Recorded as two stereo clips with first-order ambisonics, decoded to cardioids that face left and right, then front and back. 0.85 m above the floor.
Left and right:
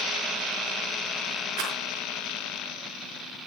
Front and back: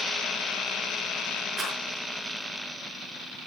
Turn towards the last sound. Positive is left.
turn(degrees=-110)